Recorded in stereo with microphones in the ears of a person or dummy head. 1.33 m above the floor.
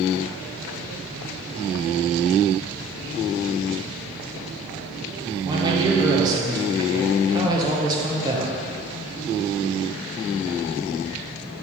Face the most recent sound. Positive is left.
turn(degrees=-20)  # may be behind; listen again after turning